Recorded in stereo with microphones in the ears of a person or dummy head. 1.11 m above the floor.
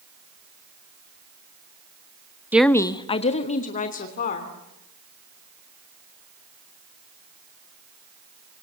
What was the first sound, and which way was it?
A woman speaking, 10° right (ahead or behind).